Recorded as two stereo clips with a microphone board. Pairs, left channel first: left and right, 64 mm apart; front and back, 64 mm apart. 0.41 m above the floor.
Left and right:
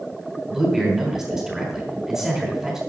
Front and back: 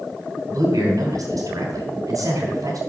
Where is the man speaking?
170° right, 3 m.